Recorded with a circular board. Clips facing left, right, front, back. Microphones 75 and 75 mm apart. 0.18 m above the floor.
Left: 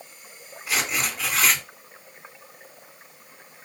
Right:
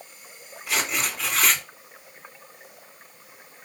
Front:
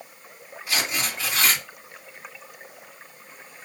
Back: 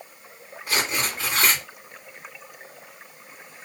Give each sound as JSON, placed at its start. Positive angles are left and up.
{"t": 0.7, "sound": "tearing paper", "azimuth_deg": 175, "distance_m": 2.0}